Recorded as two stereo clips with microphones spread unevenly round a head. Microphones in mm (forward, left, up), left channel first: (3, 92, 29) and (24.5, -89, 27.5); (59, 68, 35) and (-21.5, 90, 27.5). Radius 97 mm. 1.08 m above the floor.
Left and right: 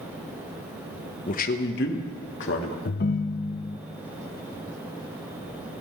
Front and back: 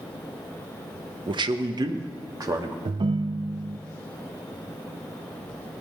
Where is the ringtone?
135° left, 0.5 m.